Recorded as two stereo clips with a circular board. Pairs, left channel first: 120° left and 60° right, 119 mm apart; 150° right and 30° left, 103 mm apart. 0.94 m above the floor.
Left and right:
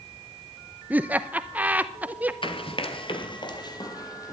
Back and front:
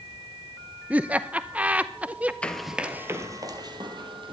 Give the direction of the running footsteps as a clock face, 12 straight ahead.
7 o'clock.